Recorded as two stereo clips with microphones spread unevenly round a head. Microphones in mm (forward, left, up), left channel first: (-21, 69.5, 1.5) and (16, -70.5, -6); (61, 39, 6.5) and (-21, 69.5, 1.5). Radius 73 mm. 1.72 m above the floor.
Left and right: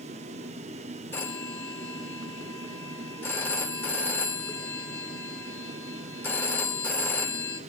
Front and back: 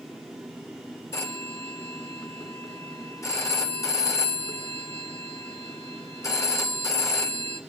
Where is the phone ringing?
30° left, 3 m.